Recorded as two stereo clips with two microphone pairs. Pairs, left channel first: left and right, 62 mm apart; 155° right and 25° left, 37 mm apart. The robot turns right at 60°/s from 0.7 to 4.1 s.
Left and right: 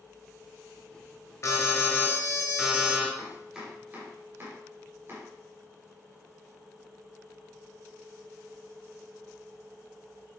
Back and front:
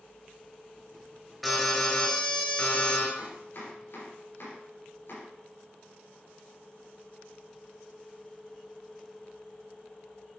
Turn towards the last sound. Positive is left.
turn(degrees=-140)